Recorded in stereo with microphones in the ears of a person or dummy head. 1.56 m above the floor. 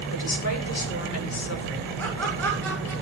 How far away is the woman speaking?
About 4.5 m.